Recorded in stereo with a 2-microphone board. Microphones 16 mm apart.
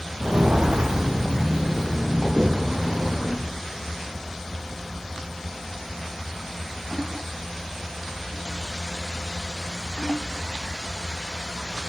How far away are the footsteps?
About 0.6 m.